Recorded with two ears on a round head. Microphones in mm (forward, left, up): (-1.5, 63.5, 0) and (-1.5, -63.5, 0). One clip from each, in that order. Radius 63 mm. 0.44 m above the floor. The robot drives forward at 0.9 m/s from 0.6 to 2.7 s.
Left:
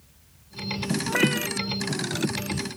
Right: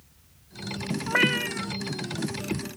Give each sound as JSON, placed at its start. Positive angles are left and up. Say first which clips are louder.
{"t": 1.1, "sound": "a cat meowing", "louder": "right 2 dB", "side_deg": -35}